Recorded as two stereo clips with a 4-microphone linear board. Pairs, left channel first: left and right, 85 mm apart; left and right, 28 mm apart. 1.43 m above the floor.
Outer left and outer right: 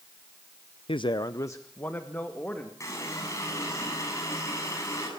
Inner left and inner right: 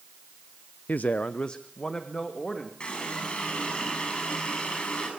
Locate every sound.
0.9 s a man speaking: 90° left, 0.5 m; by 2.7 s 20° left (ahead or behind), 2.5 m
2.8 s a running tap: 35° left (ahead or behind), 7.5 m